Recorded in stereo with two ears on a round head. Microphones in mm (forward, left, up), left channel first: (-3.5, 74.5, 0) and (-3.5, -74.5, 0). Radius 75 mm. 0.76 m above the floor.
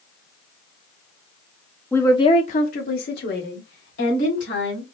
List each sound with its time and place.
1.9 s a woman speaking: 10° left (ahead or behind), 0.8 m; by 4.8 s 80° left, 3 m